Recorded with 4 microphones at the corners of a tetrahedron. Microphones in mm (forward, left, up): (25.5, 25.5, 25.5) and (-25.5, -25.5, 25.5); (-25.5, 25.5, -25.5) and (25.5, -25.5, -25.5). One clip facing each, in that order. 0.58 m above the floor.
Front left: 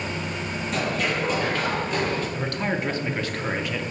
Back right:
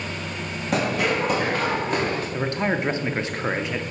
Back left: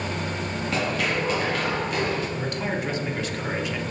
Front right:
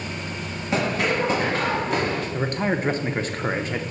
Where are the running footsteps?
115° right, 1.7 m; by 2.2 s 95° right, 2 m.